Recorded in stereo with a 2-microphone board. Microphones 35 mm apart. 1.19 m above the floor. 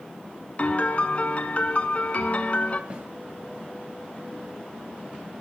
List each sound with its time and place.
0.6 s a piano: 40° left (ahead or behind), 1.9 m
2.9 s a snare drum: 30° right (ahead or behind), 6.5 m